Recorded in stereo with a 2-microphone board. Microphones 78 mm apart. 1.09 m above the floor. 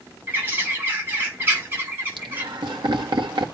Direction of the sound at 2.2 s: 80° right.